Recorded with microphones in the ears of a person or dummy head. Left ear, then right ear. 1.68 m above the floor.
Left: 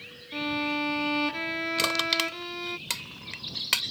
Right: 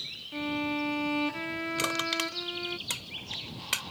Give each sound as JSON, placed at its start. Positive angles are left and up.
{"t": 0.3, "sound": "a violin", "side_deg": 15}
{"t": 1.8, "sound": "crushing", "side_deg": 15}